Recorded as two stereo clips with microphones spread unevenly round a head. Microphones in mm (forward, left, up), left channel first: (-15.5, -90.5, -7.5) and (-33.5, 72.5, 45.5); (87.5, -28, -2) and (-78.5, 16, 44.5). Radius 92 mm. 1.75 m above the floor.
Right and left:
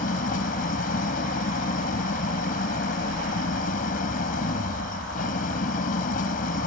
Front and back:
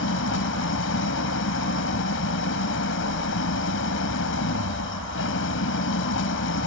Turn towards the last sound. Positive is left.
turn(degrees=-35)